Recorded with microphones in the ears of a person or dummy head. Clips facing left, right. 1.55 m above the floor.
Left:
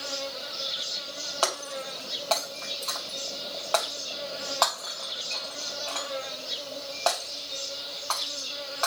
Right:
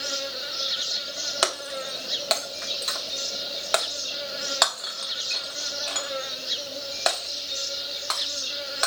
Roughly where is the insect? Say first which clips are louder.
Right 1 dB; right.